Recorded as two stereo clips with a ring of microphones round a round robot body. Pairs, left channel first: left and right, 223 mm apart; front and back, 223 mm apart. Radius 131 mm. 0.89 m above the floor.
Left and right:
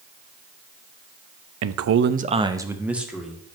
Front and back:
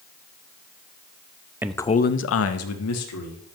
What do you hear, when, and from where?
1.6 s a man speaking: 100° right, 0.6 m; by 3.4 s straight ahead, 1.9 m